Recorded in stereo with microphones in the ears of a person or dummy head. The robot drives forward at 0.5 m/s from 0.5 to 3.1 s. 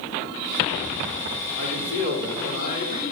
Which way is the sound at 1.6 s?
75° left (ahead or behind).